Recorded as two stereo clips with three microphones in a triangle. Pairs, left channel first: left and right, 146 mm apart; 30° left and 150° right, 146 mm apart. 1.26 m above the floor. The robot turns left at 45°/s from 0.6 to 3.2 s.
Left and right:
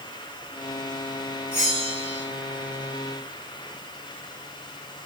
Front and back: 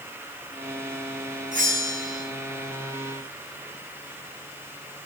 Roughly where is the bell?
Behind right.